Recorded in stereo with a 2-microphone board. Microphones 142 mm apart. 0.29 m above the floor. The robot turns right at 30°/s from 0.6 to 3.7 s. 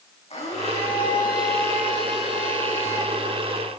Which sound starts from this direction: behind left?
A blender, at 0.3 s.